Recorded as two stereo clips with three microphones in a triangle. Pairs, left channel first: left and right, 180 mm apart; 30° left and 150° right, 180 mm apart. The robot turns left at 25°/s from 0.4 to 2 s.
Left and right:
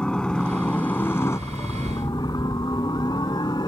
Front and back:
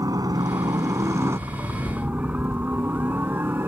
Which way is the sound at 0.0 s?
170° left.